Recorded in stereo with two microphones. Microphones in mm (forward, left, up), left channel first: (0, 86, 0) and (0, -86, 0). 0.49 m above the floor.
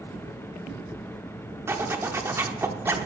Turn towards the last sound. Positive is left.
turn(degrees=-15)  # may be behind; listen again after turning